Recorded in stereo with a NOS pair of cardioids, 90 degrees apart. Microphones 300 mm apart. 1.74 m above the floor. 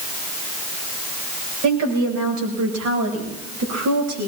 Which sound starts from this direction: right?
A woman speaking, at 1.6 s.